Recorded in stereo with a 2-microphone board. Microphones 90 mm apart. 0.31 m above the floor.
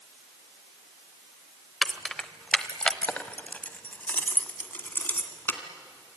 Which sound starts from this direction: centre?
Keys jangling, at 1.8 s.